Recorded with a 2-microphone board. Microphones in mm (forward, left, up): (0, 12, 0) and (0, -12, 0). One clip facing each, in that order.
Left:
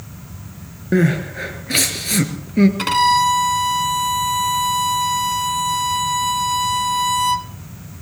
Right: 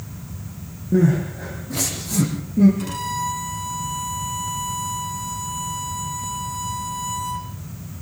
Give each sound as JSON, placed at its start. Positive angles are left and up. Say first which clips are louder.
{"t": 0.9, "sound": "crying", "louder": "left 1 dB", "side_deg": 75, "distance_m": 4.0}
{"t": 2.8, "sound": "a violin", "louder": "left 12 dB", "side_deg": 70, "distance_m": 1.1}